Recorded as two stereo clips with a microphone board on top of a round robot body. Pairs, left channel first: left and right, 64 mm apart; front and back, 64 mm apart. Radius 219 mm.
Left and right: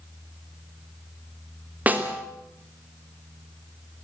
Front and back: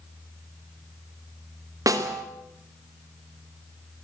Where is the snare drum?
155° right, 3 m.